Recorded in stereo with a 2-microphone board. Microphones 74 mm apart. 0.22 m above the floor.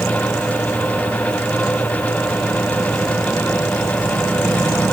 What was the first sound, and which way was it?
Only background noise.